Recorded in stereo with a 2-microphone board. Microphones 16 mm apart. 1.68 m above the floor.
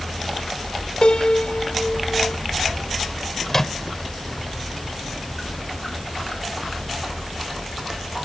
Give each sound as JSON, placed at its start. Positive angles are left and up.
{"t": 1.0, "sound": "a piano", "side_deg": 85}
{"t": 3.5, "sound": "a microwave", "side_deg": 30}